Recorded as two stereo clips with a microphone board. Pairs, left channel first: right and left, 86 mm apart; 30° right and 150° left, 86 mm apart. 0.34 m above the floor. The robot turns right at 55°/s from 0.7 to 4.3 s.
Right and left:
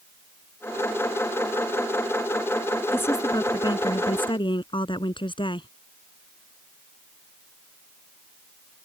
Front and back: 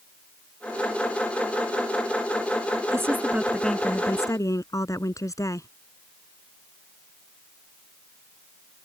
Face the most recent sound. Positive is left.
turn(degrees=-80)